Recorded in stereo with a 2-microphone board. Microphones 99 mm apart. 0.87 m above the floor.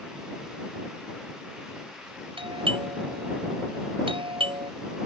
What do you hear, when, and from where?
2.4 s a doorbell: 60° right (ahead or behind)